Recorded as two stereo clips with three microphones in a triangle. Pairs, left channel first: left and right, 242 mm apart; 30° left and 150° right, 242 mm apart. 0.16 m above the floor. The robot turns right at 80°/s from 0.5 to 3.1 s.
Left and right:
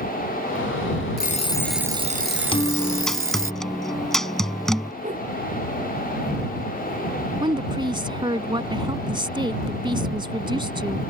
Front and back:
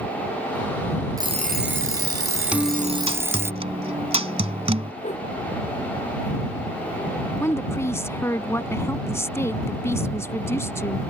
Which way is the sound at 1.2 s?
135° left.